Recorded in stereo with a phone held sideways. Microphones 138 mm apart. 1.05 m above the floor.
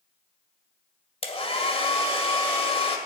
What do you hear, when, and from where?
1.2 s a hair dryer: 45° left (ahead or behind), 1.9 m